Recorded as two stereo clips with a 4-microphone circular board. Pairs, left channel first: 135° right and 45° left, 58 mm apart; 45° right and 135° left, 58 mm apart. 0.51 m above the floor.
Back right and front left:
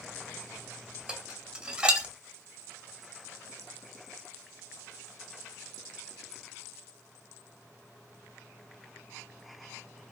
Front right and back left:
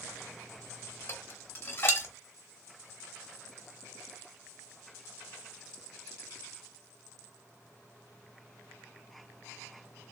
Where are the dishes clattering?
20° right, 0.5 m.